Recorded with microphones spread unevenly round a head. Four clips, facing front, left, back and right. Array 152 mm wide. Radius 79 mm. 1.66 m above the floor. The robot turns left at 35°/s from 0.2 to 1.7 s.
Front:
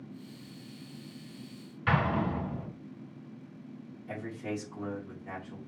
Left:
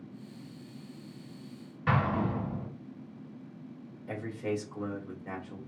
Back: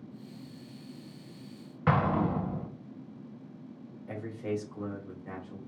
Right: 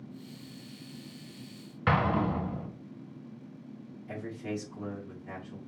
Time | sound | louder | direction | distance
1.9 | an explosion | right 2 dB, back 2 dB | 155° right | 1.1 m
4.1 | a man speaking | left 3 dB, back 2 dB | 95° left | 2.5 m